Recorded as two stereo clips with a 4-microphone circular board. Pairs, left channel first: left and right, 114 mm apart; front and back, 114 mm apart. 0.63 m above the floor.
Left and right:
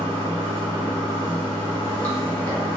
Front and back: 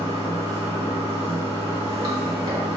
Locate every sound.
0.0 s running water: 155° left, 1.9 m